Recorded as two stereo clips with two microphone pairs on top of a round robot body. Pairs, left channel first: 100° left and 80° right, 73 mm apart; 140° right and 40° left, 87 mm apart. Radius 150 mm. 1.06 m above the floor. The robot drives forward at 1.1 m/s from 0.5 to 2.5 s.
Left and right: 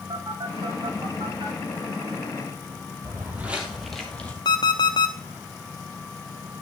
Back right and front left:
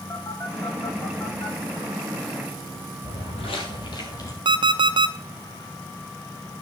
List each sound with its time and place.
0.1 s a phone buzzing: 75° right, 3.5 m; by 1.6 s 95° right, 3 m
3.0 s footsteps: 135° right, 1.8 m; by 4.3 s 170° left, 1.9 m
4.5 s an alarm clock: 70° left, 0.6 m